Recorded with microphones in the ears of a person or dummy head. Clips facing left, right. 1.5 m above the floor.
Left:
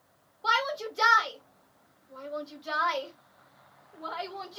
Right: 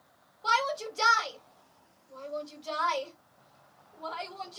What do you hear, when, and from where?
0.4 s a shout: 30° left (ahead or behind), 2 m